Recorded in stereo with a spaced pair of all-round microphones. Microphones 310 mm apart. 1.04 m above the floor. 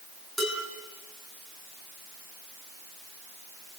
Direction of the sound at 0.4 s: Centre (ahead or behind).